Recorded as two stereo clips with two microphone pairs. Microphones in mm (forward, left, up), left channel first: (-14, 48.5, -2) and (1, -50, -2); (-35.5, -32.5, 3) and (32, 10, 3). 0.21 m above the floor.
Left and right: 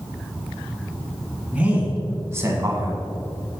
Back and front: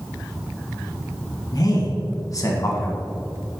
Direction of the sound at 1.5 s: 155° right.